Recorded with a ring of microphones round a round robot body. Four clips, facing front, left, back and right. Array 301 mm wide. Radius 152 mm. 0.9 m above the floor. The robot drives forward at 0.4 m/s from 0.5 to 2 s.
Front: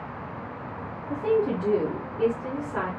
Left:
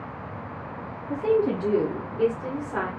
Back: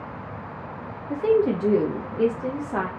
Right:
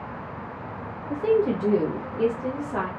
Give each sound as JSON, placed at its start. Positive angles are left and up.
{"t": 1.1, "sound": "a woman speaking", "azimuth_deg": -160, "distance_m": 0.5}